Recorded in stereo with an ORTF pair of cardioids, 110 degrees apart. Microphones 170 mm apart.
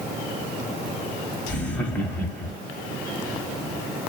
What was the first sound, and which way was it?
Laughter, 10° left.